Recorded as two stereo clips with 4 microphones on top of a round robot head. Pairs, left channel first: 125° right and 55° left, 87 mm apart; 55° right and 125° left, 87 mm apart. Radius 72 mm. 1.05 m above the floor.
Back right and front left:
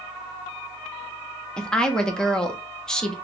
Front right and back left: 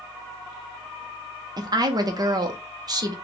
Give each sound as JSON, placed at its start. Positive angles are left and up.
{"t": 1.6, "sound": "a woman speaking", "azimuth_deg": 155, "distance_m": 1.0}